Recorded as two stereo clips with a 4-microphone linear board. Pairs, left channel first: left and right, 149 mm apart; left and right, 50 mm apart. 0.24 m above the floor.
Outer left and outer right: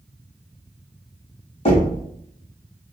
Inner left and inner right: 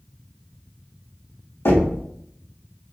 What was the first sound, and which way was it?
Knocking, 40° left (ahead or behind).